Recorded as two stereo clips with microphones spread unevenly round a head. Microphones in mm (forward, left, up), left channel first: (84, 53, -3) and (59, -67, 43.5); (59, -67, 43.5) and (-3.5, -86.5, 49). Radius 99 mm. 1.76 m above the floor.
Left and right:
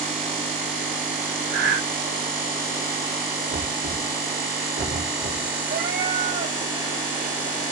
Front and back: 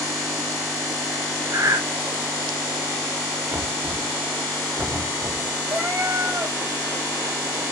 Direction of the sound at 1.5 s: 130° right.